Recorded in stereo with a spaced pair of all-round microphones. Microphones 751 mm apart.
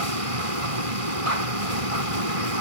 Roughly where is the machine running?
Right.